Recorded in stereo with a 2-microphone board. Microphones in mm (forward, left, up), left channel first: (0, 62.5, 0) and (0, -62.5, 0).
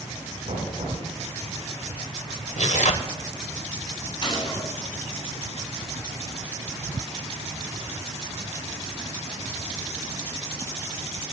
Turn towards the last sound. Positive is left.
turn(degrees=45)  # may be behind; listen again after turning